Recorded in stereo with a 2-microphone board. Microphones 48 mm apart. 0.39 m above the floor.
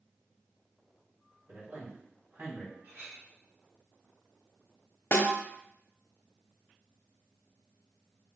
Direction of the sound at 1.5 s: 50° right (ahead or behind).